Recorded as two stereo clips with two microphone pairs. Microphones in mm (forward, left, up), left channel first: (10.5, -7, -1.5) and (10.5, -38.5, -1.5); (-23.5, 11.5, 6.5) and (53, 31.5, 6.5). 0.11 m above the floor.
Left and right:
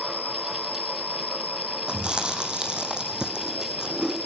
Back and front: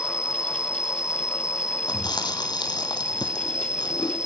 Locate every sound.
0.0 s an insect: 90° left, 1.1 m
1.9 s chewing: 150° right, 1.9 m